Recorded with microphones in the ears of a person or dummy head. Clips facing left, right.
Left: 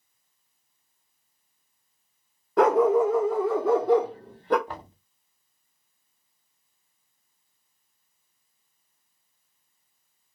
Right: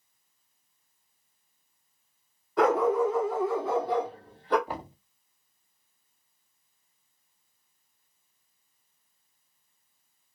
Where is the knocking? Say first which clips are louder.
Right 3 dB; 15° right (ahead or behind), 0.7 m.